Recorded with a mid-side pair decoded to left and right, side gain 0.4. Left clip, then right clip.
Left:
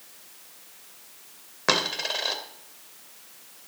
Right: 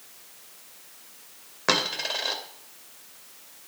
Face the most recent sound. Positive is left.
turn(degrees=10)